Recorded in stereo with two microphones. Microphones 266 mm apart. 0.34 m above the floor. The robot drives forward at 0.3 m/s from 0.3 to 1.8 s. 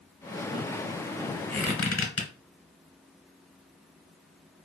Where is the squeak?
50° left (ahead or behind), 0.9 m; by 2.3 s 55° left (ahead or behind), 0.9 m.